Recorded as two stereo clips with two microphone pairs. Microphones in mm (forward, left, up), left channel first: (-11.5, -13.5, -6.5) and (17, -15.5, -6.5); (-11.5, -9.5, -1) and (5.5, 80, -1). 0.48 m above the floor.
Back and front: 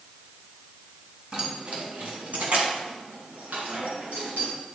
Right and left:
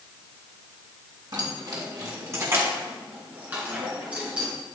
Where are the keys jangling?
45° left, 2.5 m; by 4.5 s 5° left, 5.5 m.